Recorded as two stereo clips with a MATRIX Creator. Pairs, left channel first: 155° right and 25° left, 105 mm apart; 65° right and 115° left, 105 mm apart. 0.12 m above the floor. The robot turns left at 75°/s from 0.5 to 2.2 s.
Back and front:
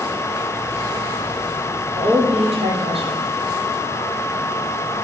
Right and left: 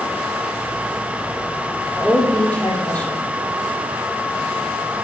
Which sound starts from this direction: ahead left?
A woman speaking, at 1.9 s.